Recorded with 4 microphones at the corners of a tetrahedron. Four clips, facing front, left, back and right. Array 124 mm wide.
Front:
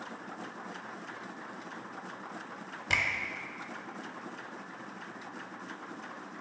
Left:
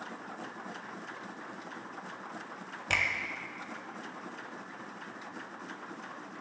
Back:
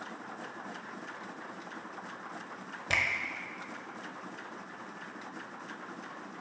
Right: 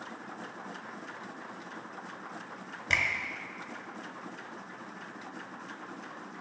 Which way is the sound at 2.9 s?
150° left.